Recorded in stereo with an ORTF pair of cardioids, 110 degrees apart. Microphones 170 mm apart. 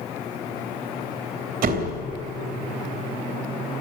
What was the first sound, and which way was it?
A door slam, 65° right.